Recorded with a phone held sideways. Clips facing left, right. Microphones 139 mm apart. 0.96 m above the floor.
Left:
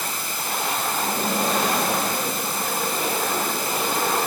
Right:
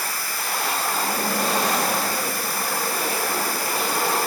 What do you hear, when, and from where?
0.0 s running water: 20° left (ahead or behind)